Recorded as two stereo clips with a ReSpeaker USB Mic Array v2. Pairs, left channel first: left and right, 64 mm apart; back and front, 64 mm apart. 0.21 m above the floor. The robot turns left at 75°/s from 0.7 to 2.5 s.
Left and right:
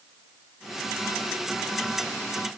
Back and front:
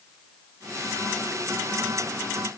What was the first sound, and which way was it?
Only background noise.